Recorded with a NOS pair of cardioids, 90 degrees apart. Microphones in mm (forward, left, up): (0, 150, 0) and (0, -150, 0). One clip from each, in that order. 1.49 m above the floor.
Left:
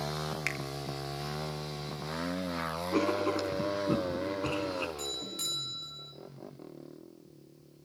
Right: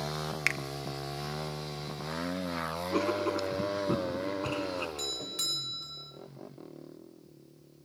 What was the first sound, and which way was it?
A finger snap, 30° right.